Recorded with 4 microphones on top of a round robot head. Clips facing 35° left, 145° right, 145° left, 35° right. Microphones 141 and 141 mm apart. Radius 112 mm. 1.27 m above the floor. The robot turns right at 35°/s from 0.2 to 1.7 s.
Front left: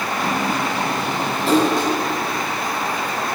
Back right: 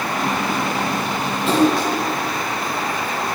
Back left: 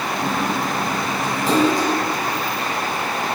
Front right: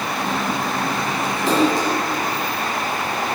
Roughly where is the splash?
Ahead.